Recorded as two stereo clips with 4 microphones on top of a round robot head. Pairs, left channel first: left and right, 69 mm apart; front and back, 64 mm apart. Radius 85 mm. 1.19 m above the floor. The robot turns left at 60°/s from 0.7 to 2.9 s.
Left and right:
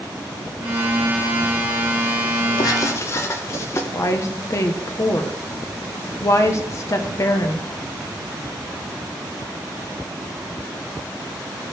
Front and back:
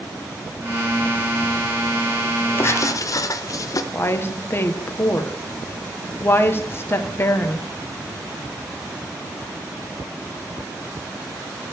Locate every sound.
2.6 s writing: 50° left, 0.6 m; by 3.8 s 35° left, 0.6 m
3.9 s a woman speaking: 45° left, 1.0 m